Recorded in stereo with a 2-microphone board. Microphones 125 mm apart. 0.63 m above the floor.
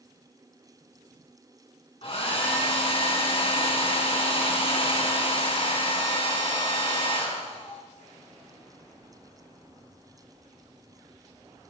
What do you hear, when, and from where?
2.0 s a hair dryer: 50° left (ahead or behind), 3.5 m